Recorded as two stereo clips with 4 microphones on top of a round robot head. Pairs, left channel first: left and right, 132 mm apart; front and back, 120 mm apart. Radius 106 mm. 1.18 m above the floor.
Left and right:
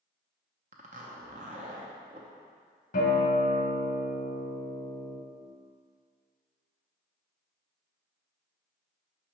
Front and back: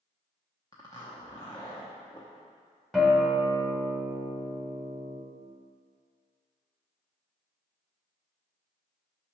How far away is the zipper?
About 0.7 m.